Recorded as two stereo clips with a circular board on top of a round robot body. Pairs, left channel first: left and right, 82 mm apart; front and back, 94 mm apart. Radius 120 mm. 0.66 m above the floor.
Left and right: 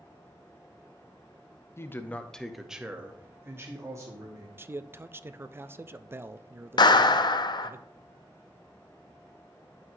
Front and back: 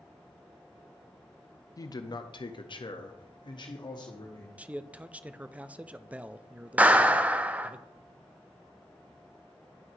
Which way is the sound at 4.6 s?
115° right.